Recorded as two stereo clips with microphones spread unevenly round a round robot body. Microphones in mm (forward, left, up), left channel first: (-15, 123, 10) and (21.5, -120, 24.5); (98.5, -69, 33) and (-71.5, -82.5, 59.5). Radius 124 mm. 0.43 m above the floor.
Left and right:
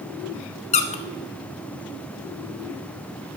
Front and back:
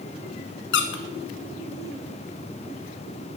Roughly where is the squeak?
Ahead left.